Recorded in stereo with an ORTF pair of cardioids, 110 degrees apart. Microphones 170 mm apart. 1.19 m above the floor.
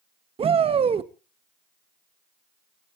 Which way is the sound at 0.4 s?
35° right.